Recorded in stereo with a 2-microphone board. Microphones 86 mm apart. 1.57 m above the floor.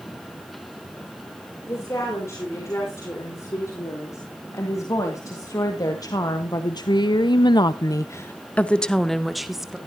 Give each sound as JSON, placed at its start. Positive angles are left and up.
{"t": 1.7, "sound": "a woman speaking", "side_deg": 35, "distance_m": 5.5}